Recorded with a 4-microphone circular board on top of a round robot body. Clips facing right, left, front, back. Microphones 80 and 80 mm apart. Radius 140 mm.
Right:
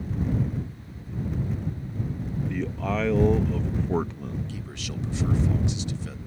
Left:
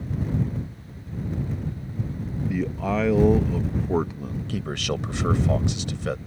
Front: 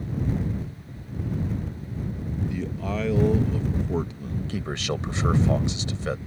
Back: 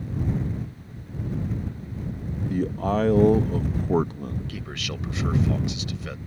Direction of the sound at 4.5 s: 60° left.